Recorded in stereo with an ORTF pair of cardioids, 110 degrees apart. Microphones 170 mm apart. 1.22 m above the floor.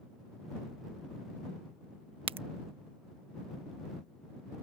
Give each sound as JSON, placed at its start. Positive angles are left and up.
{"t": 2.3, "sound": "a crack", "azimuth_deg": -35}